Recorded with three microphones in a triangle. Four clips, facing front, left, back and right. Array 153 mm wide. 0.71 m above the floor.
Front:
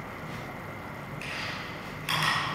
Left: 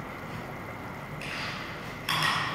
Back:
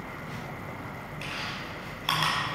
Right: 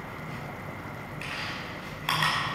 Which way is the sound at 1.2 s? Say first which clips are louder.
Even, back 1 dB; 130° right.